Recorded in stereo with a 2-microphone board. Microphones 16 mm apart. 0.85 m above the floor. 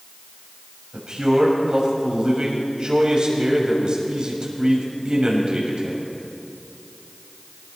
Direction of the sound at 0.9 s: 70° right (ahead or behind).